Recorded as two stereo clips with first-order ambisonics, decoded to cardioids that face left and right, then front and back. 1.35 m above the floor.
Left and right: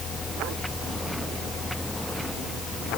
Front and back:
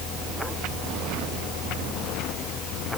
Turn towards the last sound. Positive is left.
No sound to turn to.